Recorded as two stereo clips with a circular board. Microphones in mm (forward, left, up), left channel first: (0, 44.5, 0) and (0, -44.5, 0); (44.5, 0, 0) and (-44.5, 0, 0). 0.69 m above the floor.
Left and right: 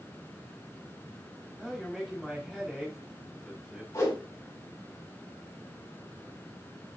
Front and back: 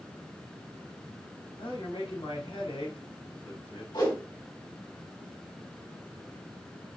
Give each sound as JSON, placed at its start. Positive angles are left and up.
{"t": 1.6, "sound": "a man speaking", "azimuth_deg": -5, "distance_m": 5.0}
{"t": 3.9, "sound": "a whoosh", "azimuth_deg": 35, "distance_m": 4.5}